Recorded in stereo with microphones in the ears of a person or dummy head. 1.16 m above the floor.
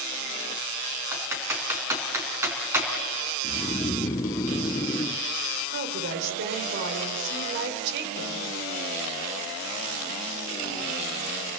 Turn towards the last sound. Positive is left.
turn(degrees=-60)  # may be behind; listen again after turning